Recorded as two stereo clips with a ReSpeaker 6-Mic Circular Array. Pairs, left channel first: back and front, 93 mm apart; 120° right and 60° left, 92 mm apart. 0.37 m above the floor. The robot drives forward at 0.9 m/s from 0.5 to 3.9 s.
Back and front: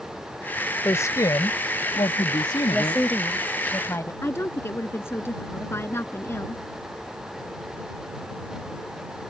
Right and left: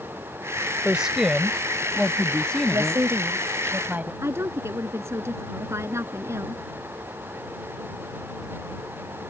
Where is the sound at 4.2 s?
120° left.